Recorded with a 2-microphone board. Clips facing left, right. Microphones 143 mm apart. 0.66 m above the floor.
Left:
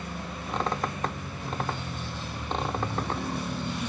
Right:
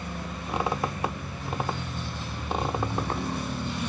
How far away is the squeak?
About 0.7 m.